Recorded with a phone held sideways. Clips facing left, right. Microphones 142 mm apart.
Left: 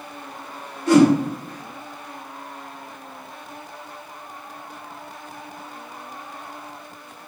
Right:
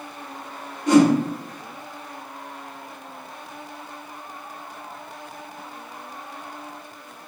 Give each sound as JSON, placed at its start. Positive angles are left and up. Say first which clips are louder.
{"t": 0.9, "sound": "a whoosh", "louder": "left 1 dB", "side_deg": -15, "distance_m": 1.1}